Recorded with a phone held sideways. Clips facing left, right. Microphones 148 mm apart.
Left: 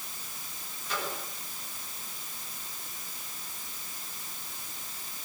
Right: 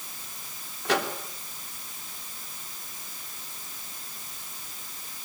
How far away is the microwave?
About 3.5 m.